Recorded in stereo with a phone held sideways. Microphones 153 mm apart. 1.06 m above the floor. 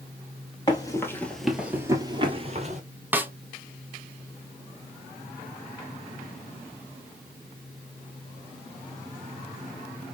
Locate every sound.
0.7 s running footsteps: 25° left (ahead or behind), 1.4 m; by 2.8 s 45° right (ahead or behind), 1.5 m
3.1 s a snare drum: 10° right (ahead or behind), 0.6 m